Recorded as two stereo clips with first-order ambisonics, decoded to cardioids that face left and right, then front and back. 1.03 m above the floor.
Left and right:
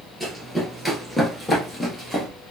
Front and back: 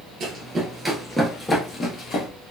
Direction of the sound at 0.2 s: 175° right.